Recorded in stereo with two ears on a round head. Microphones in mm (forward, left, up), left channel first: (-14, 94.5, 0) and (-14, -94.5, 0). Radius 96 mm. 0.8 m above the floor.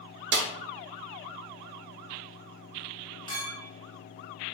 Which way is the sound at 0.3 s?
50° right (ahead or behind).